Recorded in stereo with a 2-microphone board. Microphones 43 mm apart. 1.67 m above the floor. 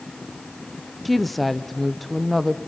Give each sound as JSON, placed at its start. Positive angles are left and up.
{"t": 1.1, "sound": "a woman speaking", "side_deg": 0, "distance_m": 0.6}